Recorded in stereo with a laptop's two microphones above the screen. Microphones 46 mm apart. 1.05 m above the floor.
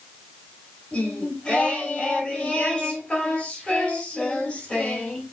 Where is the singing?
20° left (ahead or behind), 4.5 m.